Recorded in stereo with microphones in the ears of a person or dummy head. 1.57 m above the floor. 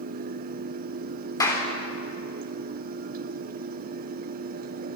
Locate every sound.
0.0 s a fan: 50° right (ahead or behind), 0.9 m
1.4 s a clap: 25° left (ahead or behind), 3 m